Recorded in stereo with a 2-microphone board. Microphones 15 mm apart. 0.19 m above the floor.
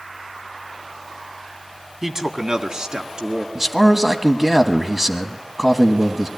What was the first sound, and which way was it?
A man speaking, 30° right (ahead or behind).